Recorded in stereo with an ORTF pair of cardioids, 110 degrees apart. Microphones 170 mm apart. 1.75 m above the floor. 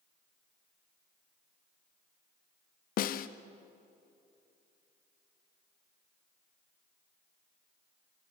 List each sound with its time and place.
3.0 s a snare drum: 60° left, 0.9 m